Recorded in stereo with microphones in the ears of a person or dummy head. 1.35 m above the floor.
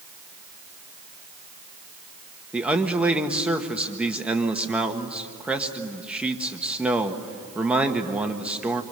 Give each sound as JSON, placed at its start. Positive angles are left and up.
{"t": 2.5, "sound": "a man speaking", "side_deg": -5, "distance_m": 1.3}